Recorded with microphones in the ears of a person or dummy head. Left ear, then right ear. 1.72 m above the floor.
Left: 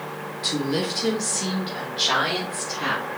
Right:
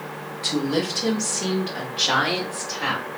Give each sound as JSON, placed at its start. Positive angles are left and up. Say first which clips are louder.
{"t": 0.4, "sound": "a woman speaking", "louder": "right 1 dB", "side_deg": -10, "distance_m": 0.5}